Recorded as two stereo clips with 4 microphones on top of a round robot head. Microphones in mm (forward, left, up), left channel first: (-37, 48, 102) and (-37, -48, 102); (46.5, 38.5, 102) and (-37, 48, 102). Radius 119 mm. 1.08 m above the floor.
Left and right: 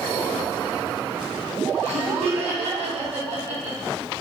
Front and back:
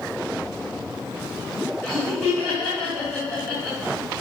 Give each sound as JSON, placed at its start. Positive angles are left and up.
{"t": 1.8, "sound": "laughter", "azimuth_deg": -80, "distance_m": 2.5}